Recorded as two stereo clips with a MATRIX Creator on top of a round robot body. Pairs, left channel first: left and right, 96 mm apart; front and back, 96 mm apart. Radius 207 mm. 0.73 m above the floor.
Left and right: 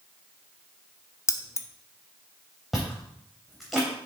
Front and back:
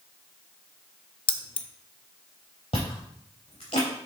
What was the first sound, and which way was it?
Keys jangling, 30° left.